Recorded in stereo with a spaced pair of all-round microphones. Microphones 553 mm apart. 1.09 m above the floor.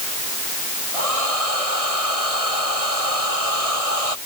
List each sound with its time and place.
0.9 s a hair dryer: 85° right